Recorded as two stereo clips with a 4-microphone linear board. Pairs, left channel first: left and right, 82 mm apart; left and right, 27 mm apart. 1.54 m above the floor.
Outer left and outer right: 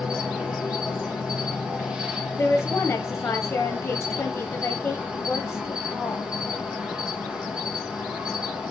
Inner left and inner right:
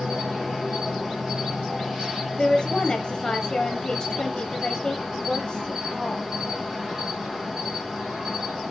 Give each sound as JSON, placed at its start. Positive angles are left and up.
{"t": 0.0, "sound": "an insect", "side_deg": -10, "distance_m": 1.6}
{"t": 2.4, "sound": "a woman speaking", "side_deg": 15, "distance_m": 1.2}